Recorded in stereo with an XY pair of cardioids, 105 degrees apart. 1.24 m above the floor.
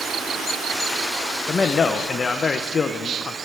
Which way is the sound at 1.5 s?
40° left.